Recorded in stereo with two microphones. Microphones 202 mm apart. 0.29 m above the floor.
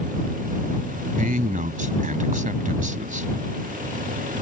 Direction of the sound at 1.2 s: 45° right (ahead or behind).